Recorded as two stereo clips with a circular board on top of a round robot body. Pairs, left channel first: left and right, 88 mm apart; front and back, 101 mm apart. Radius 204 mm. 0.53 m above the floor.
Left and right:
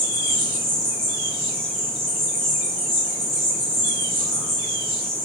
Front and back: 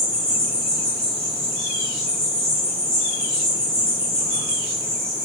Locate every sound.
0.0 s an insect: straight behind, 3 m